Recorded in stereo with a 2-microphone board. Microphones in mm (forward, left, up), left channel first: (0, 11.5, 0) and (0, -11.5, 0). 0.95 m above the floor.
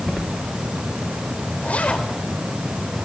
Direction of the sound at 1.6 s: 75° left (ahead or behind).